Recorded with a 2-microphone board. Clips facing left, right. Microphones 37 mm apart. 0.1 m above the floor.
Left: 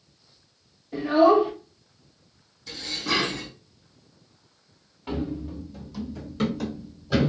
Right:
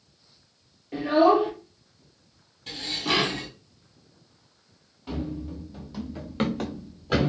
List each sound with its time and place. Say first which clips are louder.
0.9 s a child speaking: left 1 dB; 45° right (ahead or behind), 1.9 m
2.7 s dishes clattering: right 1 dB; 65° right (ahead or behind), 2 m
5.1 s running footsteps: left 2 dB; 30° left (ahead or behind), 0.9 m; by 7.3 s 60° right (ahead or behind), 1.7 m